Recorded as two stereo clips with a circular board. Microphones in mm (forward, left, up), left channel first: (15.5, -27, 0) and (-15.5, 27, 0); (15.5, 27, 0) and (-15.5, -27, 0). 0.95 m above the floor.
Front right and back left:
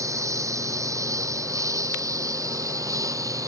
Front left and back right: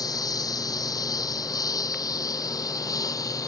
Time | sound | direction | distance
0.0 | a lawn mower | 80° left | ?